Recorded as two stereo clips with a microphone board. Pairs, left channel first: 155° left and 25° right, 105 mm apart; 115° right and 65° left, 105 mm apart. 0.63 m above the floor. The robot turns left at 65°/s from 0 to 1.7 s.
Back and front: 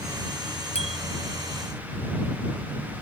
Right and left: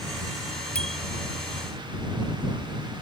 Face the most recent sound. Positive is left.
turn(degrees=110)